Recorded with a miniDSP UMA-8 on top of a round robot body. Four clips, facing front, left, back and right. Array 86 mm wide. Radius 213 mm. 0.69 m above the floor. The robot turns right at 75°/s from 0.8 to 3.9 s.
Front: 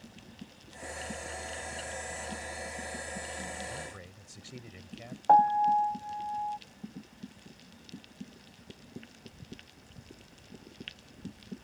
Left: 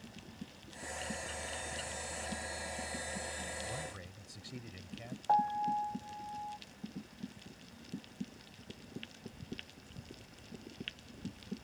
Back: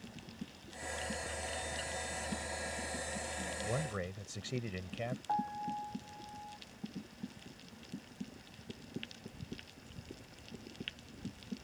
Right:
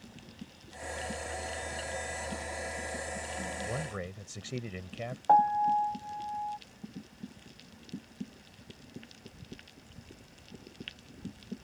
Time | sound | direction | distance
3.6 | a man speaking | 145° right | ?
5.3 | a piano | 30° right | ?